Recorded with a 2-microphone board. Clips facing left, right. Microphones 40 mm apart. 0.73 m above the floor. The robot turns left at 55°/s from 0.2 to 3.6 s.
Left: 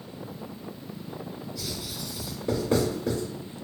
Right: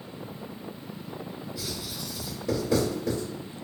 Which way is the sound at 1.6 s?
15° right (ahead or behind).